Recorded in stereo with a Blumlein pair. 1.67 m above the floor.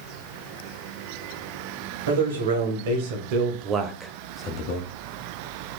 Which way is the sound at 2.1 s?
65° right.